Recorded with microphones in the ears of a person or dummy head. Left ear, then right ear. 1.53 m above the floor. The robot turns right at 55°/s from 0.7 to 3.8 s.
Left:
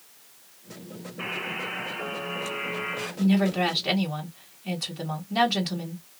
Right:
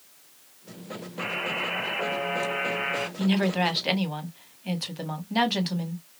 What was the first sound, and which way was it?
A buzzer, 175° right.